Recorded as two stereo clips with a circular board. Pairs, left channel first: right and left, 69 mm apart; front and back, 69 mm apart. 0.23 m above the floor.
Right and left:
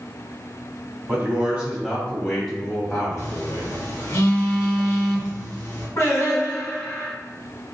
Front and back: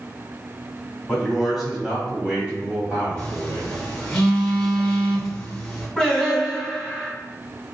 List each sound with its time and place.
1.1 s a man speaking: 80° left, 1.5 m; by 4.2 s 135° right, 2 m
3.2 s a phone buzzing: 75° right, 1.4 m
6.0 s singing: 85° right, 1.9 m